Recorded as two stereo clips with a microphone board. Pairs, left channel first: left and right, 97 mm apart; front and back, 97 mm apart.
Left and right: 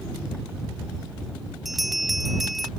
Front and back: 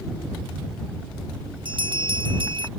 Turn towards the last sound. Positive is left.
turn(degrees=180)